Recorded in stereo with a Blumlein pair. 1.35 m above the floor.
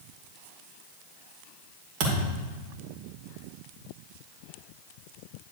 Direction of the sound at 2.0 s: 45° right.